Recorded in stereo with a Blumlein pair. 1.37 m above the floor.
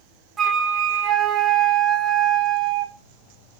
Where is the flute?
20° right, 0.9 m.